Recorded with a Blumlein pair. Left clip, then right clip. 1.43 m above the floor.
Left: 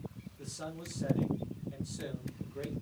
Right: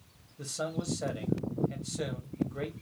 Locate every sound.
0.4 s a man speaking: 60° right, 1.7 m